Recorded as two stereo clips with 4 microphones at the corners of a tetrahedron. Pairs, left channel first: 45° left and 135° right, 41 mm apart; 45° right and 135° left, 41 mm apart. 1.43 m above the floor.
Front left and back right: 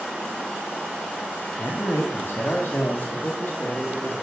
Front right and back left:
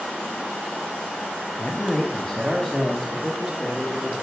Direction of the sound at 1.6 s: 25° left.